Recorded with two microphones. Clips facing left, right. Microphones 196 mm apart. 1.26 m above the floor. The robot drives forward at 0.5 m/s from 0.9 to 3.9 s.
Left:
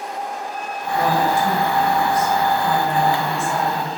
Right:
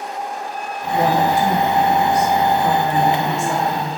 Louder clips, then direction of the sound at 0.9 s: Right 2 dB; 60° right (ahead or behind).